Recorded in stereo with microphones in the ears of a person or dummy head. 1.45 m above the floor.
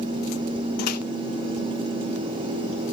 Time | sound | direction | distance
0.8 | a microwave | 50° left (ahead or behind) | 0.6 m